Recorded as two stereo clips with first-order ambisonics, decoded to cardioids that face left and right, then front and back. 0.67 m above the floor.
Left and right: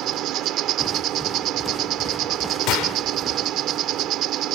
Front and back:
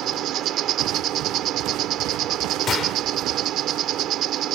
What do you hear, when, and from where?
0.0 s an insect: 130° right
2.7 s a gunshot: 60° left